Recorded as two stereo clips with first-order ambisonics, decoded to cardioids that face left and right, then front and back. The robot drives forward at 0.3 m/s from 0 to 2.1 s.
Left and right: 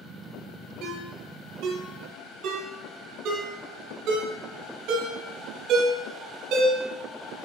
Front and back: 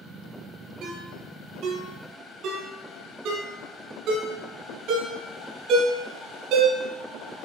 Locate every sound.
0.8 s a ringtone: 135° right, 4 m